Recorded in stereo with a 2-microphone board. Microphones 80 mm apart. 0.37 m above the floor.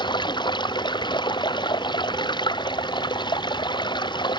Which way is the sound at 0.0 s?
75° left (ahead or behind).